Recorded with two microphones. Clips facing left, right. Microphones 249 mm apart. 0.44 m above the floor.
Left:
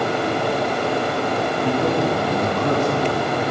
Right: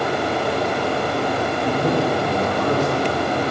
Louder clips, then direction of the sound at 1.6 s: Even; 60° left (ahead or behind).